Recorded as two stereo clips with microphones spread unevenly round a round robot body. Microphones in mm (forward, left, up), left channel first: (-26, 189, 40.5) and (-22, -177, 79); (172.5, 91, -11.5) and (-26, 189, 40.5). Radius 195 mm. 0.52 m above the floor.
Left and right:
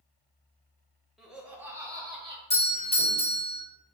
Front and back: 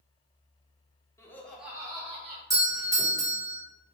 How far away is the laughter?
About 1.0 m.